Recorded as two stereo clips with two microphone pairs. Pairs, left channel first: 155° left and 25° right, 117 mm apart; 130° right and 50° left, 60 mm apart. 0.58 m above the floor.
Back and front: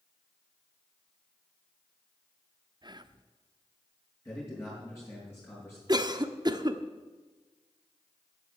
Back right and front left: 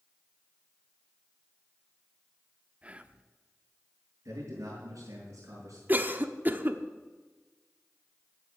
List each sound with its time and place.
2.8 s whispering: 5° right, 0.8 m
4.2 s a man speaking: 85° left, 6 m
5.9 s a cough: 5° left, 1.0 m